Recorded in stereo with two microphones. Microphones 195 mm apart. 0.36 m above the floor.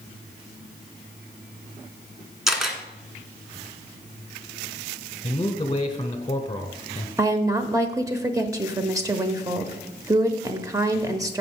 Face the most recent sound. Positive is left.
turn(degrees=-15)  # may be behind; listen again after turning